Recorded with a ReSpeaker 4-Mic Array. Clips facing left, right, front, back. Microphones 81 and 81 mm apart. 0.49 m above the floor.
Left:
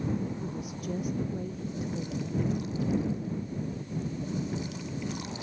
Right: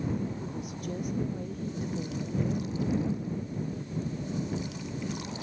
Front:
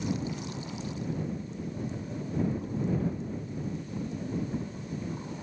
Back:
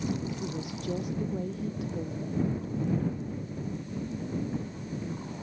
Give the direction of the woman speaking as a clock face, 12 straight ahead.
6 o'clock.